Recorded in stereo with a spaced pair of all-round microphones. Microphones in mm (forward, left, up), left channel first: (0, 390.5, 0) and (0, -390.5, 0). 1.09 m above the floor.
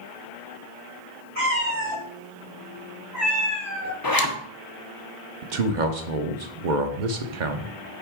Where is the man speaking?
70° right (ahead or behind), 0.9 m.